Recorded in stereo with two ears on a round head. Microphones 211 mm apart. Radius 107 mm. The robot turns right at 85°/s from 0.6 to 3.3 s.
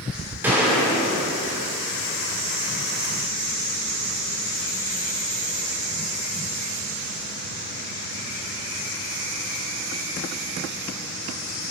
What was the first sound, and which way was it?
A gunshot, 10° right.